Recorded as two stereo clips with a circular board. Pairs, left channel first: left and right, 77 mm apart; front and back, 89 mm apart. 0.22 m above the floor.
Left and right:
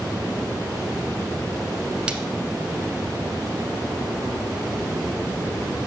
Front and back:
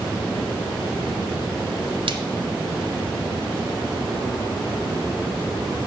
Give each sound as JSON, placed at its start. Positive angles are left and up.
{"t": 2.1, "sound": "a splash", "azimuth_deg": -165, "distance_m": 0.6}